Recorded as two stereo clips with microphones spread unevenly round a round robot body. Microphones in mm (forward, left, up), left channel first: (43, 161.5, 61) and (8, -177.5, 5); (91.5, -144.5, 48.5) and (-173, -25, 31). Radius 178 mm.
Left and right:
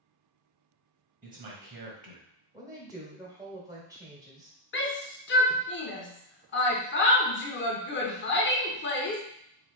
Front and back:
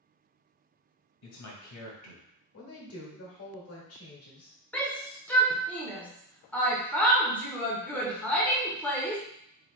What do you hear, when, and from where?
1.2 s a man speaking: 40° right, 2 m
2.5 s a woman speaking: 30° right, 1.7 m
4.7 s a shout: 65° left, 1.0 m